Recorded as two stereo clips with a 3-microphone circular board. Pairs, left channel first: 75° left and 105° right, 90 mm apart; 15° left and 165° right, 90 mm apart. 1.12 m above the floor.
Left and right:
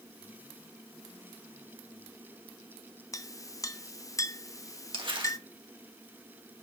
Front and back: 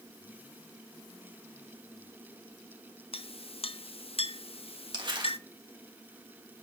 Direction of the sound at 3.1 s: 20° left.